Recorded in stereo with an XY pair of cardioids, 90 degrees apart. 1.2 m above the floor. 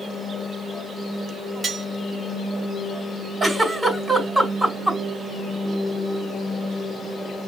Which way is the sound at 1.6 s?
35° right.